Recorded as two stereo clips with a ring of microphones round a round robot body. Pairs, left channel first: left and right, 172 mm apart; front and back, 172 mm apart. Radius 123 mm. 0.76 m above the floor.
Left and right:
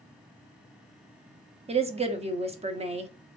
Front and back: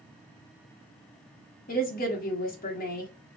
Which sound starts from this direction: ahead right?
A woman speaking, at 1.7 s.